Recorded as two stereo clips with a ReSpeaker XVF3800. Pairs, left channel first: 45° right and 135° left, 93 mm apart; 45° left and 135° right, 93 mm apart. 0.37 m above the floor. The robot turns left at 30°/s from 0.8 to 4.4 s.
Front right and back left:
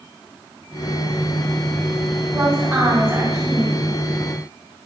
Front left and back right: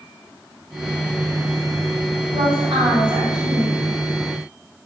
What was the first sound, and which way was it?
A woman speaking, 145° right.